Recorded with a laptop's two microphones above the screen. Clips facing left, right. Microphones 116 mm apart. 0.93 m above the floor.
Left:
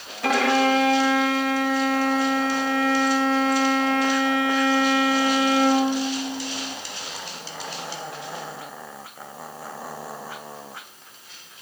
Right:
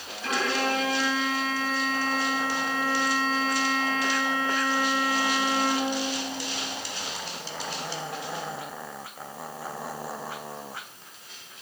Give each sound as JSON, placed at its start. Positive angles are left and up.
{"t": 0.2, "sound": "a violin", "side_deg": 75, "distance_m": 2.5}